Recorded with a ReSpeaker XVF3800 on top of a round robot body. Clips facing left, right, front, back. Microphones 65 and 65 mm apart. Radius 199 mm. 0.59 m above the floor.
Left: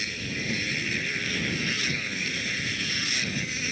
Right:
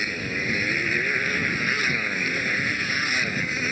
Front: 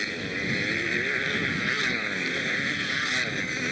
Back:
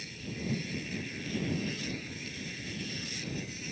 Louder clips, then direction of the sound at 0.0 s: Right 5 dB, front 10 dB; 35° right.